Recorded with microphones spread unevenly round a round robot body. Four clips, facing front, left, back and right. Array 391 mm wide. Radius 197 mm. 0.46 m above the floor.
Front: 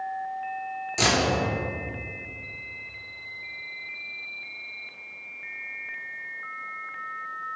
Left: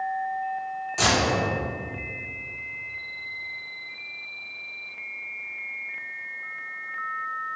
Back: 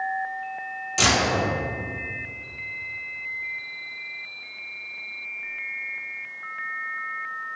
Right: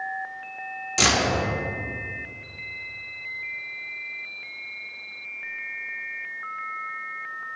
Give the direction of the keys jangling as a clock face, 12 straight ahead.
3 o'clock.